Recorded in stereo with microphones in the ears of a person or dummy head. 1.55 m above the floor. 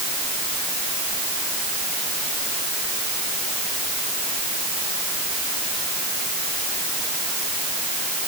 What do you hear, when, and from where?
Only background noise.